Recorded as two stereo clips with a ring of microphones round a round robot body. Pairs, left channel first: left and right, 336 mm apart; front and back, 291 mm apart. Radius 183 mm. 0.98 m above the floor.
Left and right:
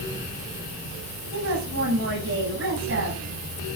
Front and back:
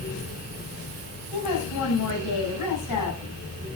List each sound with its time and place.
1.3 s a woman speaking: 35° right, 8 m